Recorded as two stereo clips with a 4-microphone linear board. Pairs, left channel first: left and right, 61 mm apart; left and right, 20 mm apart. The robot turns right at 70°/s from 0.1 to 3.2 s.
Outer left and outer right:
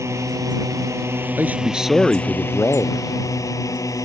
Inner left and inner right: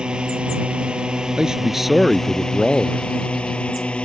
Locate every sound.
0.0 s a drone: 120° right; by 4.1 s 95° left
1.4 s a man speaking: 45° right; by 3.1 s 75° left